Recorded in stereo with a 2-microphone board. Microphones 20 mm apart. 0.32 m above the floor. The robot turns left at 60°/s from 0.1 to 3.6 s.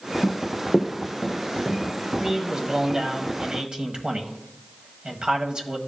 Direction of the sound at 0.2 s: 60° left (ahead or behind).